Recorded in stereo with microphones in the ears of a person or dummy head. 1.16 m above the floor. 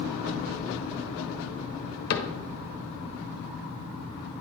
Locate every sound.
2.1 s a cupboard door: 55° left (ahead or behind), 0.8 m